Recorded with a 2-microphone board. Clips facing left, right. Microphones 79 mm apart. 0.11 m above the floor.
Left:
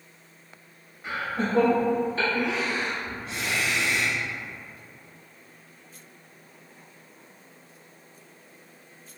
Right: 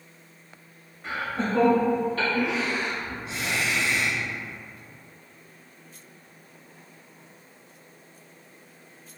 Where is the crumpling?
No crumpling in this recording.